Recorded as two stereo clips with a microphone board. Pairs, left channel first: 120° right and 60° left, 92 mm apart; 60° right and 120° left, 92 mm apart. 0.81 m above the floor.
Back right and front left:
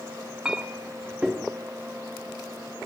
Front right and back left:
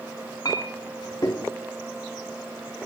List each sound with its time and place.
0.5 s a clink: 20° right, 0.6 m